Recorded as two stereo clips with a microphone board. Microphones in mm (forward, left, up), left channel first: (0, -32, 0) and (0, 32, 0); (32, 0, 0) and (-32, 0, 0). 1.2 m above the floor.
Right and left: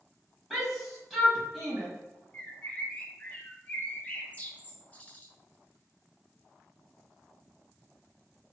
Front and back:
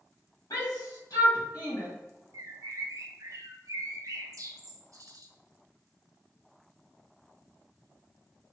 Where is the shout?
Straight ahead, 1.6 m.